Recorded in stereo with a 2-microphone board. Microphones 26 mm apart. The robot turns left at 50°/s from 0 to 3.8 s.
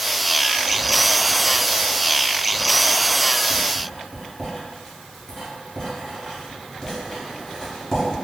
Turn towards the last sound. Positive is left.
turn(degrees=30)  # may be behind; listen again after turning